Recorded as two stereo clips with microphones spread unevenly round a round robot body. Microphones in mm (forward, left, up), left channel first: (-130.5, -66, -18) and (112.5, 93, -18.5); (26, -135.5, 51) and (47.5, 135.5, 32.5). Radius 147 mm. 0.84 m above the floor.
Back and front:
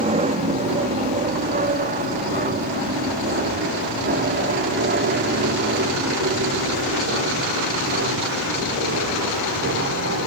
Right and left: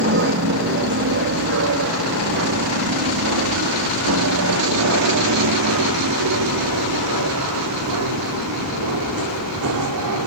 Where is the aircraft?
90° left; by 10.3 s 80° left.